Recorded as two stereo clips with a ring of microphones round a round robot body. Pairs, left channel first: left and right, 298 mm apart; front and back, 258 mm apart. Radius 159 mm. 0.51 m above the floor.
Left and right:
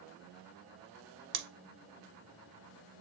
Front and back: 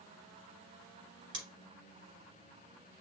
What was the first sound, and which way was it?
Scissors, 125° right.